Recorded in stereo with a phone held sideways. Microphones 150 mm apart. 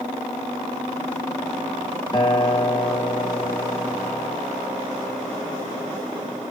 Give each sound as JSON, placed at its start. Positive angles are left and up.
{"t": 2.1, "sound": "a guitar", "side_deg": 30, "distance_m": 0.9}